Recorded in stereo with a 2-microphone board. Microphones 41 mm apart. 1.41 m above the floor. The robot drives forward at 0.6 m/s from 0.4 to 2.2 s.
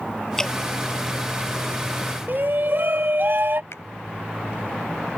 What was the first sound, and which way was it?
Dripping, 15° left (ahead or behind).